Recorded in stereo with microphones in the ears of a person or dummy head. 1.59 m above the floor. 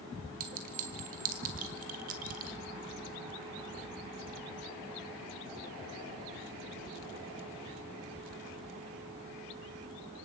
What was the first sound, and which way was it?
A clink, 45° right (ahead or behind).